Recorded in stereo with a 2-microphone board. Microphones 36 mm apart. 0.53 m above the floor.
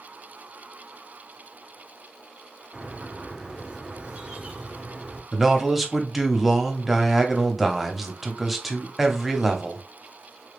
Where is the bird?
25° right (ahead or behind), 1.3 m.